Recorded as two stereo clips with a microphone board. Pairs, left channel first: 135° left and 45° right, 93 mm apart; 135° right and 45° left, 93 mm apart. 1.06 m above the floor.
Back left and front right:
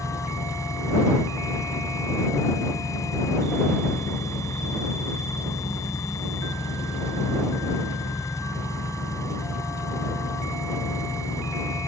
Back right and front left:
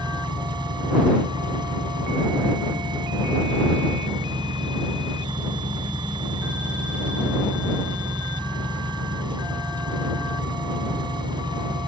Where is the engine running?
80° left.